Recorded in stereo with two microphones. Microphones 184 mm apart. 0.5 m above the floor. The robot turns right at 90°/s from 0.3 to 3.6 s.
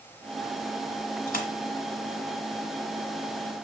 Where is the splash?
55° left (ahead or behind), 0.9 m; by 1.5 s 40° left (ahead or behind), 0.9 m.